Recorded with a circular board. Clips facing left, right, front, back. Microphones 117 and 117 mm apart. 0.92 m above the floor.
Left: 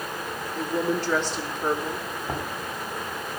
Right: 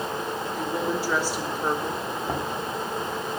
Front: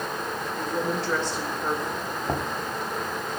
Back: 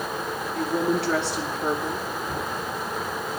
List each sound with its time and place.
0.6 s a woman speaking: 170° right, 3 m
2.3 s knocking: 25° right, 2 m